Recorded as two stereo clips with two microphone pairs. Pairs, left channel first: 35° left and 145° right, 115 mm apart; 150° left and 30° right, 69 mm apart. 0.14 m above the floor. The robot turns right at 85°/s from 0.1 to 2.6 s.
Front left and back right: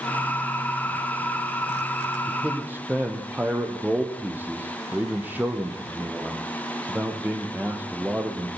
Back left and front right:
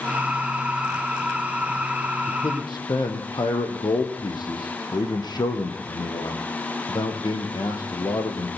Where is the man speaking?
110° left, 3.5 m; by 8.5 s 140° left, 3.5 m.